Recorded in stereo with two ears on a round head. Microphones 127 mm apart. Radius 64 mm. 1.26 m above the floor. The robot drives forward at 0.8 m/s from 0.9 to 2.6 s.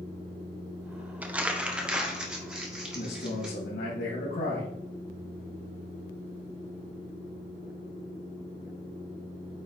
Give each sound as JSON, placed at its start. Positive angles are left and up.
{"t": 1.2, "sound": "crumpling", "side_deg": -10, "distance_m": 0.8}
{"t": 2.9, "sound": "a man speaking", "side_deg": 75, "distance_m": 2.0}